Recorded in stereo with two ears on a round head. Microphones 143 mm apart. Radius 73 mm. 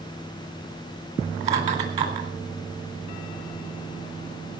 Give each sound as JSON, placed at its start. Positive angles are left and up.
{"t": 1.4, "sound": "laughter", "side_deg": -45, "distance_m": 3.5}